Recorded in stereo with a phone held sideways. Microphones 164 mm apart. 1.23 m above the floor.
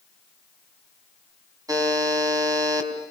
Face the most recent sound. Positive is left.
turn(degrees=-20)  # may be behind; listen again after turning